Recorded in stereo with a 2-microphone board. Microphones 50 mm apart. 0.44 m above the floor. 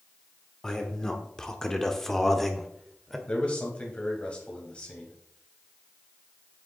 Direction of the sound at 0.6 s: 10° left (ahead or behind).